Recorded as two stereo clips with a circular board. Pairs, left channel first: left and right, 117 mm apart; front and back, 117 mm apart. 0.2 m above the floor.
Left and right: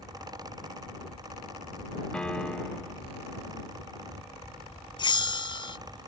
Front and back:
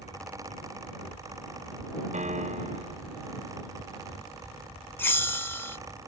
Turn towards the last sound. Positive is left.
turn(degrees=65)